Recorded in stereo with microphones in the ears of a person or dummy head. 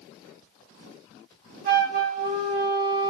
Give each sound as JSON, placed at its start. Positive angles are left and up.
{"t": 1.6, "sound": "a flute", "side_deg": -45, "distance_m": 0.8}